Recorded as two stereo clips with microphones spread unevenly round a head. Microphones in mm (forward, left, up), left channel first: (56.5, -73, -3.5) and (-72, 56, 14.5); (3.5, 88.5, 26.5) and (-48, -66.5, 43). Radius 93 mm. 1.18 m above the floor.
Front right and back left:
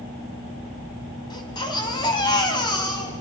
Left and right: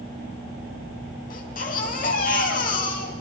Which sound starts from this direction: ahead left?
A baby crying, at 1.3 s.